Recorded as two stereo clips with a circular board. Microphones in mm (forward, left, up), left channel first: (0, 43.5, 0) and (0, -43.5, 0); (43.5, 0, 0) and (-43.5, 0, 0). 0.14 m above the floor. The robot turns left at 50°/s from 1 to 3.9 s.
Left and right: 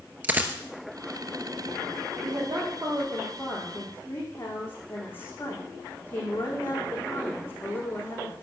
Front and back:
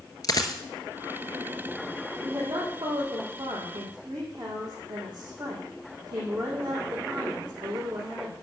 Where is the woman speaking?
125° right, 6 m; by 8.3 s 150° left, 6 m.